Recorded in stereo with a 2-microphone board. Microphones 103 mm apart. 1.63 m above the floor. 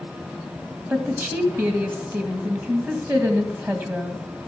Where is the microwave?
I don't hear a microwave.